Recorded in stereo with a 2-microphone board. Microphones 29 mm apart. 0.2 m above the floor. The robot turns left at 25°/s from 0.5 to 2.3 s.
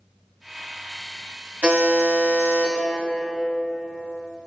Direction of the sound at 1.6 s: 55° right (ahead or behind).